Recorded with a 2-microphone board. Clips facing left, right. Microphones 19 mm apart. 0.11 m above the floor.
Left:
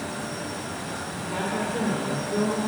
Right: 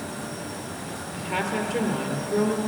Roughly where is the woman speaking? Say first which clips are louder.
Right 2 dB; right.